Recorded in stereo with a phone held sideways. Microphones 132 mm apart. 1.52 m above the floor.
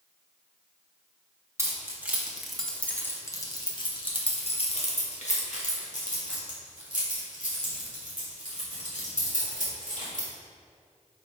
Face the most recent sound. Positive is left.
turn(degrees=85)